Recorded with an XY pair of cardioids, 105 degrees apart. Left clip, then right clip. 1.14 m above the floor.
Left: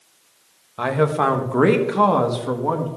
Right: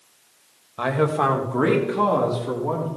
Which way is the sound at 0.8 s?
10° left.